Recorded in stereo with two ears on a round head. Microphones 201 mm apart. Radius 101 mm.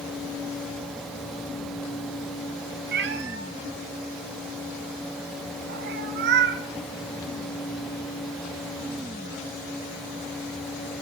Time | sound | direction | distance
2.9 | a cat meowing | 50° right (ahead or behind) | 1.2 m